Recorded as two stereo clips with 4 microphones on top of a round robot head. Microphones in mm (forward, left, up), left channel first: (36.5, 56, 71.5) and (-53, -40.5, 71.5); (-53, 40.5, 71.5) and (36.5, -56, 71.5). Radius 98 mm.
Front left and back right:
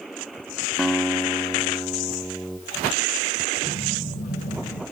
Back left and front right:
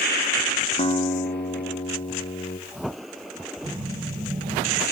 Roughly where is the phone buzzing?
Ahead.